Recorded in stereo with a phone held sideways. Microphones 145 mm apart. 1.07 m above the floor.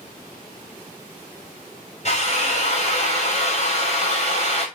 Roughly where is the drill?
Left.